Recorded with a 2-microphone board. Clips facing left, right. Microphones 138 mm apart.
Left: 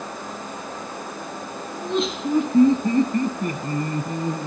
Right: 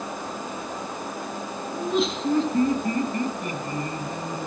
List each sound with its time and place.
1.7 s laughter: 10° right (ahead or behind), 1.3 m; by 4.5 s 55° left (ahead or behind), 2 m